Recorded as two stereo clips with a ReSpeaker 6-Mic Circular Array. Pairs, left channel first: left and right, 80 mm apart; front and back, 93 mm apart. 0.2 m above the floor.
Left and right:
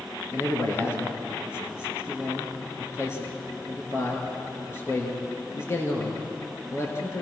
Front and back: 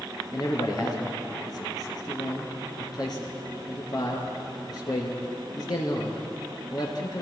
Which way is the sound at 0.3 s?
35° left.